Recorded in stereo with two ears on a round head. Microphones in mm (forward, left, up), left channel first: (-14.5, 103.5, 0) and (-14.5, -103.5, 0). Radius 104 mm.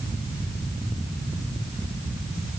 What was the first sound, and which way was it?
Only background noise.